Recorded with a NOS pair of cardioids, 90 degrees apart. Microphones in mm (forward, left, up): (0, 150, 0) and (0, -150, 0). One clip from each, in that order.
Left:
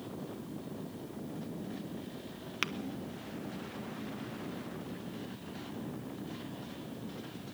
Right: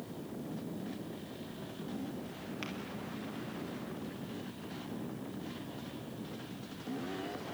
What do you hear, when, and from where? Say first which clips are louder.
2.6 s tapping: left 9 dB; 70° left, 1.3 m